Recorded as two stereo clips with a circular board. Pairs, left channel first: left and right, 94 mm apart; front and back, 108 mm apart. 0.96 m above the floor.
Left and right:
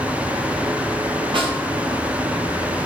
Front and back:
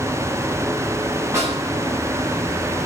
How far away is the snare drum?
About 8.5 m.